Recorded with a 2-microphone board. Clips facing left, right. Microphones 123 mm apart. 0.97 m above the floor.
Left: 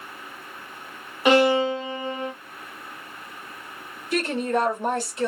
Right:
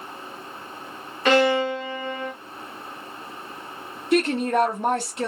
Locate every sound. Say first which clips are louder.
1.2 s a violin: left 1 dB; 15° left (ahead or behind), 1.0 m
4.1 s a woman speaking: right 4 dB; 70° right (ahead or behind), 1.6 m